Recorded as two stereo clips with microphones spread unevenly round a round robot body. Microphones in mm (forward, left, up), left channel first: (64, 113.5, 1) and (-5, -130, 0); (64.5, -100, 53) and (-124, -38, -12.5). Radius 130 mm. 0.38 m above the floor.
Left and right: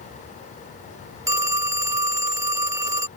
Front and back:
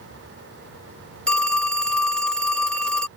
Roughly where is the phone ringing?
Behind right.